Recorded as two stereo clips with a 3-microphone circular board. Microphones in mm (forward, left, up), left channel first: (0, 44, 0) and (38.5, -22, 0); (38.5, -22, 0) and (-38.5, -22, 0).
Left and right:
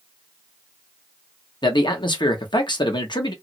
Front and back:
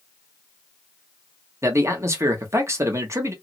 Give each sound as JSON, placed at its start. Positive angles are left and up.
{"t": 1.6, "sound": "a man speaking", "azimuth_deg": 130, "distance_m": 1.1}